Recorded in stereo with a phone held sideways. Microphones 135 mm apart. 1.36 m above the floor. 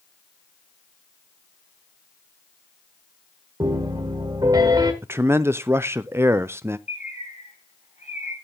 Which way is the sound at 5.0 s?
20° right (ahead or behind).